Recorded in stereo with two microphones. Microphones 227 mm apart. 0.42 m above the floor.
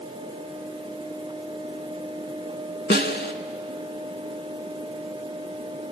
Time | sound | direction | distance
2.9 | a snare drum | 50° left (ahead or behind) | 0.7 m